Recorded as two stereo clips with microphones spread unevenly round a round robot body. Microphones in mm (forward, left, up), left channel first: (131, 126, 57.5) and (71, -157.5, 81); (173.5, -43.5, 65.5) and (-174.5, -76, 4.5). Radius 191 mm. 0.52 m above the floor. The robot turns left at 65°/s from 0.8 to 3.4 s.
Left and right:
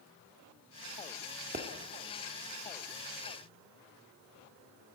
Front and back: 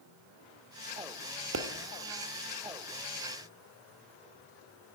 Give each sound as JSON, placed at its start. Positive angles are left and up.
{"t": 1.5, "sound": "a pop", "azimuth_deg": -155, "distance_m": 0.7}